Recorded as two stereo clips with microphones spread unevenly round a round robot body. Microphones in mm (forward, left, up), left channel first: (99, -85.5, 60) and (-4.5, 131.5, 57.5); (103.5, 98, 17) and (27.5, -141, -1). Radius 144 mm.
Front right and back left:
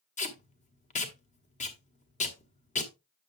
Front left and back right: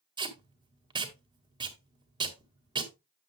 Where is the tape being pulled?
65° right, 1.6 m.